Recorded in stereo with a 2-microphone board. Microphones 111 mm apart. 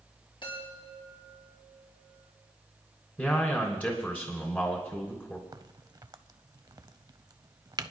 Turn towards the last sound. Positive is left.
turn(degrees=-35)  # may be behind; listen again after turning